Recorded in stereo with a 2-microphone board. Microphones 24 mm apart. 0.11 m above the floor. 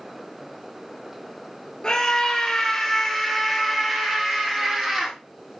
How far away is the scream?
About 1.5 m.